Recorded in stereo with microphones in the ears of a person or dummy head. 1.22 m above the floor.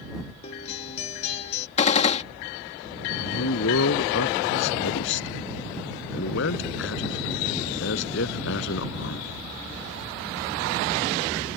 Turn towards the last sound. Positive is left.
turn(degrees=75)  # may be behind; listen again after turning